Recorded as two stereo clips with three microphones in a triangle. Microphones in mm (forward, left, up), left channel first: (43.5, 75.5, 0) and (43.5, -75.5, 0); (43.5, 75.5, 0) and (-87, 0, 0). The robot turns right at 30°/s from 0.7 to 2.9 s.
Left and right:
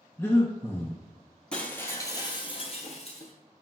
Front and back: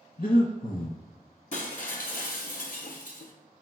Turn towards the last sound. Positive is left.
turn(degrees=50)